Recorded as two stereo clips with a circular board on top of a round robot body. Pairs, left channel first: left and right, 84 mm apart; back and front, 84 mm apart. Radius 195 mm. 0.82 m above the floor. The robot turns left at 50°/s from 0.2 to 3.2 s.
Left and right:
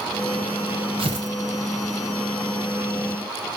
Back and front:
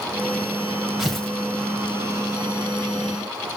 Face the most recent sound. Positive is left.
turn(degrees=165)